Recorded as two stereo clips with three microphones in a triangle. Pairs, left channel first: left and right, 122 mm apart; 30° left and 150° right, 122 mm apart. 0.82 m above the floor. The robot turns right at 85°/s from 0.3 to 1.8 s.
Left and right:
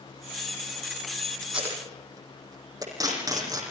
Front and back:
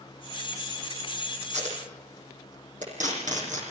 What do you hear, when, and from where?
1.4 s tape being pulled: 175° left, 9.5 m; by 3.6 s 150° right, 9.5 m